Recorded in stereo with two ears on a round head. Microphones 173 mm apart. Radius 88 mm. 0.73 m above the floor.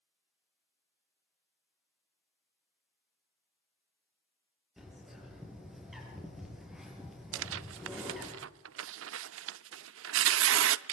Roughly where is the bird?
Centre.